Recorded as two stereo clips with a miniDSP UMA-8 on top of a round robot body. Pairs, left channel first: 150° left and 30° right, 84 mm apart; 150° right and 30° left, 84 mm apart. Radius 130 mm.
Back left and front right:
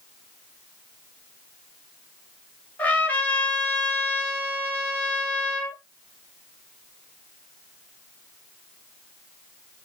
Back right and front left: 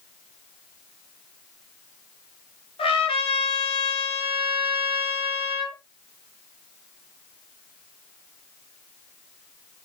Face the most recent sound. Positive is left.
turn(degrees=-135)